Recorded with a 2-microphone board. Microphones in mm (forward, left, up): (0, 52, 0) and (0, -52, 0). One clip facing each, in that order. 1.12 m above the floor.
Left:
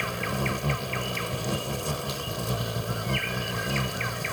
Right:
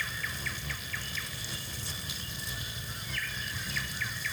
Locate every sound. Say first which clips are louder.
0.0 s an insect: left 10 dB; 70° left (ahead or behind)